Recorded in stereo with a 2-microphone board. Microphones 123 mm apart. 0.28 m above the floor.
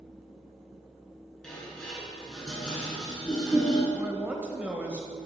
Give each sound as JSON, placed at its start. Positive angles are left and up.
{"t": 1.4, "sound": "dishes clattering", "side_deg": 5, "distance_m": 2.5}
{"t": 3.9, "sound": "a man speaking", "side_deg": -10, "distance_m": 0.9}